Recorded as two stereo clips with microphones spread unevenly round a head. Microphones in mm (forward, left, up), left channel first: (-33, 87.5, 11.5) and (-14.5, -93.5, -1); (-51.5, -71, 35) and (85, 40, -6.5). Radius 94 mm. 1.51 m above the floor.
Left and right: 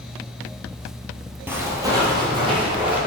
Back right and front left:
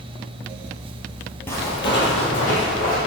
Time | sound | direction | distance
1.5 | footsteps | 160° right | 1.6 m